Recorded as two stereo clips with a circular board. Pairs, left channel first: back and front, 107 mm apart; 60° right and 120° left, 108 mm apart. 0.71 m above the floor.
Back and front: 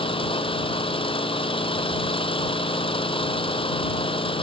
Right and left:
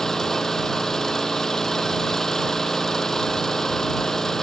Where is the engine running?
145° right.